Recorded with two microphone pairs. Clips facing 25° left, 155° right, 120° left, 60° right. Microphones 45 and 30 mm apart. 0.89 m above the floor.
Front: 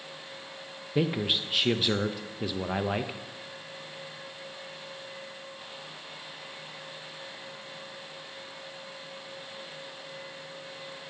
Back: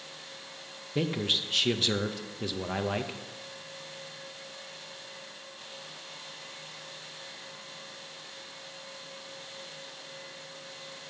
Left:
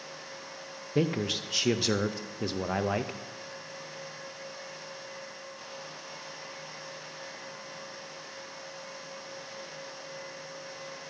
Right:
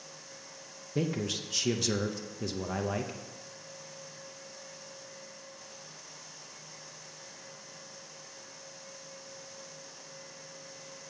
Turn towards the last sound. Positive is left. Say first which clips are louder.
# front 2 dB, left 4 dB
turn(degrees=95)